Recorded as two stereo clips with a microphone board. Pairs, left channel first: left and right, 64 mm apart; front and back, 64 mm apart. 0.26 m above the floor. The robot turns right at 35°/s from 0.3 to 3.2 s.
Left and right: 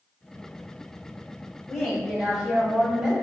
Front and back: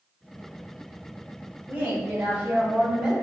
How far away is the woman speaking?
About 1.0 m.